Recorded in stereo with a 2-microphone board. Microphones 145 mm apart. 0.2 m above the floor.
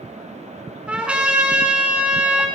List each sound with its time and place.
0.9 s a trumpet: 10° right (ahead or behind), 1.4 m